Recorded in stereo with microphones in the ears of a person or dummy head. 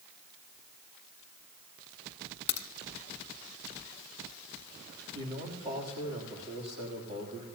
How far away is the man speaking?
About 3 m.